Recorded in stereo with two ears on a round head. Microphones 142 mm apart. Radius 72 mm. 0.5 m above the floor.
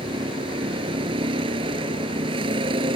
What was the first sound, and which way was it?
A vehicle, 30° right (ahead or behind).